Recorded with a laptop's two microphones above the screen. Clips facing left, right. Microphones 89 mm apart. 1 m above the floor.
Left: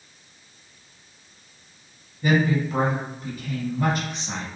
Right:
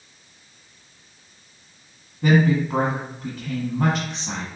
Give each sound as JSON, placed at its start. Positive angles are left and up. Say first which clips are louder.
{"t": 2.2, "sound": "a woman speaking", "louder": "right 3 dB", "side_deg": -75, "distance_m": 1.5}